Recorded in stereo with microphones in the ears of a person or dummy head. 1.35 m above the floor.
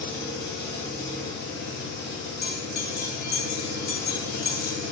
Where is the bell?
50° left (ahead or behind), 0.6 m.